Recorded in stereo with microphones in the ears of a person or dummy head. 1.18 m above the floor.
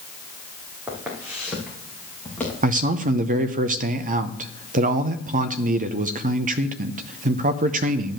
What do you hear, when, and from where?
0.9 s footsteps: 20° right (ahead or behind), 3 m; by 2.5 s 5° left (ahead or behind), 3 m
2.6 s a man speaking: 40° right (ahead or behind), 0.7 m